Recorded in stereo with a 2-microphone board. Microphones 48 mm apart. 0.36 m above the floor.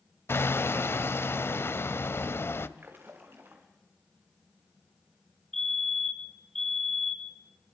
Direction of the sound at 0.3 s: 60° left (ahead or behind).